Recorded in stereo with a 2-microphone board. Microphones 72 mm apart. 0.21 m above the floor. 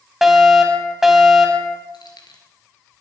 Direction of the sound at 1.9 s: 75° left (ahead or behind).